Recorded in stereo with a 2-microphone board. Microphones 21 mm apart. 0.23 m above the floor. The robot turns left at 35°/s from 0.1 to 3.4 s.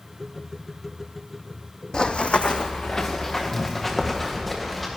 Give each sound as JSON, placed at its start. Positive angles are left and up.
{"t": 1.9, "sound": "running footsteps", "side_deg": 40, "distance_m": 0.7}